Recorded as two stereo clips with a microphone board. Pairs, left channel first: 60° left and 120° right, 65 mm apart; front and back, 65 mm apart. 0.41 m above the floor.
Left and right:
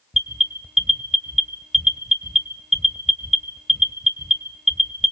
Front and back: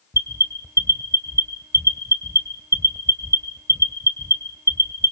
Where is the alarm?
155° left, 2 m.